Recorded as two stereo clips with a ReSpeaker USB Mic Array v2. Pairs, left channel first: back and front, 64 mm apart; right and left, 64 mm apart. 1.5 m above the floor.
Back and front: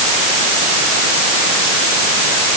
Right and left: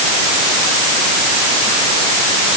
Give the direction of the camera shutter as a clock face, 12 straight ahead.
No camera shutter in this recording.